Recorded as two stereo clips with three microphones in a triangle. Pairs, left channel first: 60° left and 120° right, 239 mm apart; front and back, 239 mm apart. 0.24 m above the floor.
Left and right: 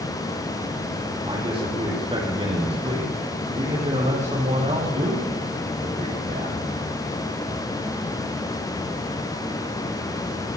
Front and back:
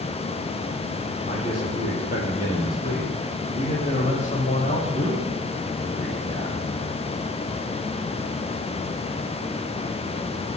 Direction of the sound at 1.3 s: 50° right.